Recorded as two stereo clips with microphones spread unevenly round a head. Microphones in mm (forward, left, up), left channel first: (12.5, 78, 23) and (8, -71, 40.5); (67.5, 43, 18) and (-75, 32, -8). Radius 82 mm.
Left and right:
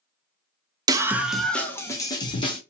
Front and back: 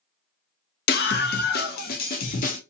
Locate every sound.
0.9 s a scream: 25° right, 0.7 m; by 2.6 s 35° left, 1.3 m